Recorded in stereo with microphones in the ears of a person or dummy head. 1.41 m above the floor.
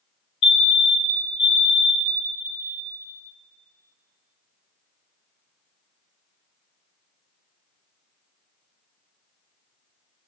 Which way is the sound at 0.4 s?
35° left (ahead or behind).